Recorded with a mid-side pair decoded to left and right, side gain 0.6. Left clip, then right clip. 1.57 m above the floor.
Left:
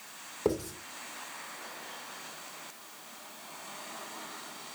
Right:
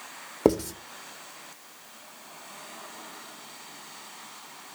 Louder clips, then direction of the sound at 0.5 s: Right 8 dB; 60° right.